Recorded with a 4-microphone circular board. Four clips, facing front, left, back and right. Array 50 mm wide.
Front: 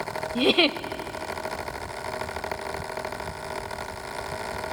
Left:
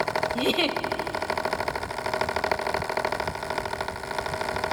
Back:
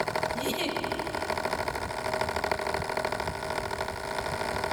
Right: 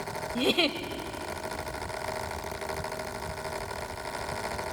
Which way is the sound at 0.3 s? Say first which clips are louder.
Right 2 dB, front 9 dB; 5° left.